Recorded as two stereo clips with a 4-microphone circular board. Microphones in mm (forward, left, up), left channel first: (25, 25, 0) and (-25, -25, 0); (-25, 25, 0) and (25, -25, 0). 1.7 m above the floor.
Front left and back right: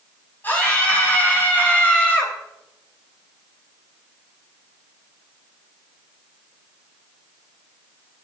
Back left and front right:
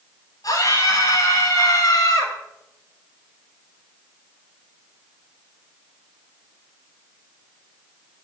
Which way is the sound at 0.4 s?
105° left.